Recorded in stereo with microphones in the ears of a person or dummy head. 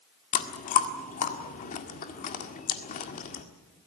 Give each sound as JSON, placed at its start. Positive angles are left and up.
{"t": 0.3, "sound": "chewing", "side_deg": 45, "distance_m": 1.7}